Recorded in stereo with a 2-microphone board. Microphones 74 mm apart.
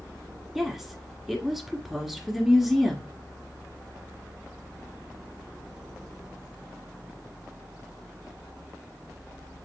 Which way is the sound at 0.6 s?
5° right (ahead or behind).